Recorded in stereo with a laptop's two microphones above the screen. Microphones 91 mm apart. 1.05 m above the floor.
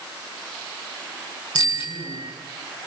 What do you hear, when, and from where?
1.6 s a bicycle bell: 70° left (ahead or behind), 7.5 m